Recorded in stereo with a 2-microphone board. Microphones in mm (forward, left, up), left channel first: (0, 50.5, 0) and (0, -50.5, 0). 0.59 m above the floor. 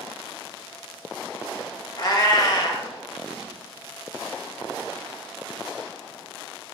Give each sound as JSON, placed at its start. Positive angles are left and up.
{"t": 2.0, "sound": "a cat meowing", "side_deg": 40, "distance_m": 0.8}